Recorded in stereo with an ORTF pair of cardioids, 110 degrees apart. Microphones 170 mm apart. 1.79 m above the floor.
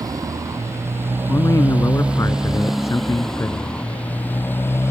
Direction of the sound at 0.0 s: 20° right.